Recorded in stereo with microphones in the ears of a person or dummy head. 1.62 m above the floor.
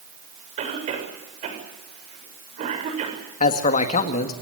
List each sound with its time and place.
0.6 s a cough: 40° right (ahead or behind), 7 m
3.4 s a man speaking: 40° left (ahead or behind), 2 m